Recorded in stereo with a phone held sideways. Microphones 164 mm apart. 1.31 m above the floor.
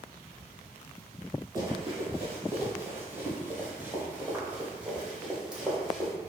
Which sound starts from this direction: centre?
Running footsteps, at 1.6 s.